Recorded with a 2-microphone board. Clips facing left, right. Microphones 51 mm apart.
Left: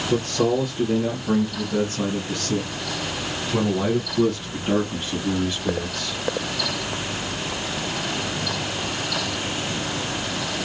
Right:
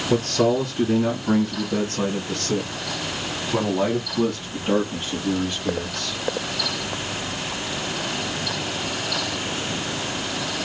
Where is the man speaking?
65° right (ahead or behind), 3 m; by 6.2 s centre (ahead or behind), 2.5 m.